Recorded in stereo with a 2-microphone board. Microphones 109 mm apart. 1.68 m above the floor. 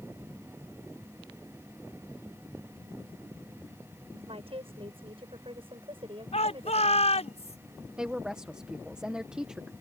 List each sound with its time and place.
4.3 s a woman speaking: 60° right (ahead or behind); by 7.3 s 50° right (ahead or behind)
6.3 s a shout: 80° left
8.0 s a woman speaking: 5° right (ahead or behind)